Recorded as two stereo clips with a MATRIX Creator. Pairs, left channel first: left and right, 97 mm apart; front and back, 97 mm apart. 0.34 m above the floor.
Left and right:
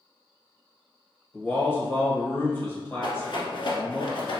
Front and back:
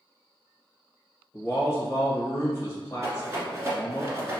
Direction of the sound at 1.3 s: 35° left.